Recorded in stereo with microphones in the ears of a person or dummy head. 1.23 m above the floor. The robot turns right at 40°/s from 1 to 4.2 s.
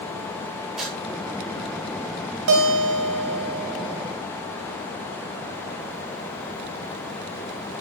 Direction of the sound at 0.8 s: 5° right (ahead or behind).